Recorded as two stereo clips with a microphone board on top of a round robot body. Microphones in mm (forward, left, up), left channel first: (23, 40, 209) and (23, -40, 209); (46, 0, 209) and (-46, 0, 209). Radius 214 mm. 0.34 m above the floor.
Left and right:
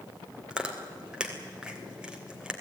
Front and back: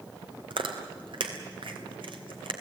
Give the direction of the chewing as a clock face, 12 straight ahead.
6 o'clock.